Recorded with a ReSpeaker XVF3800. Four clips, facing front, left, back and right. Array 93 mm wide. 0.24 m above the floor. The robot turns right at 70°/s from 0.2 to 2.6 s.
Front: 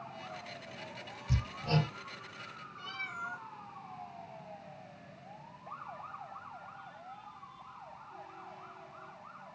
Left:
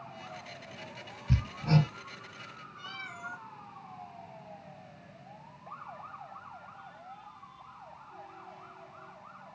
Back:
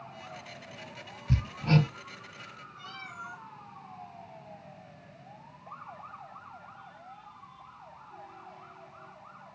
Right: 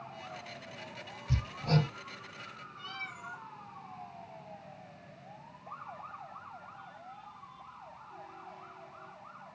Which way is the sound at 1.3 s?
125° left.